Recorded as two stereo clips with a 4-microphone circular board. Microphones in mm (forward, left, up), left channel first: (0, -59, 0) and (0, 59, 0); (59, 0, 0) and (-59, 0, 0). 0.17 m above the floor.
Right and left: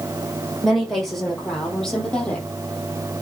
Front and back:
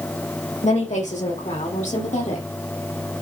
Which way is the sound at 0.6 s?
Straight ahead.